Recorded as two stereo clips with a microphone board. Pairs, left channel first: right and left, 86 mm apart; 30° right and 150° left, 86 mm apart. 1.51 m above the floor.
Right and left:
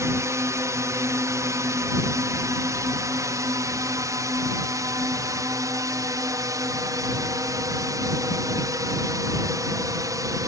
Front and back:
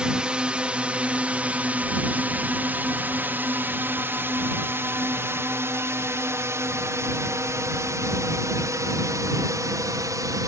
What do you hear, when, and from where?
0.0 s a drone: 80° left; by 10.5 s 120° left